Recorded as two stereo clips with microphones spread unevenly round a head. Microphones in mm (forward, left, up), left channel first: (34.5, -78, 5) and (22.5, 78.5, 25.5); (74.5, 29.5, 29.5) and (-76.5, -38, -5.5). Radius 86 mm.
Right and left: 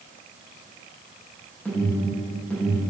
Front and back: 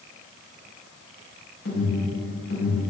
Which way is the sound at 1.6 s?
5° right.